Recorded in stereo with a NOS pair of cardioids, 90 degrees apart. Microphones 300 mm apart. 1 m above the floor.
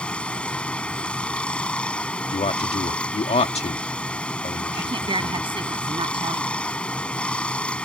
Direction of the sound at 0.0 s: 5° left.